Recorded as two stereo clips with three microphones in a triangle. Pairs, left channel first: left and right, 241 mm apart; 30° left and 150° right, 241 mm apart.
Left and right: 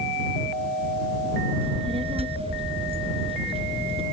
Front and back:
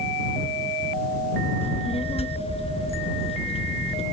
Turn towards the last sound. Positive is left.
turn(degrees=-30)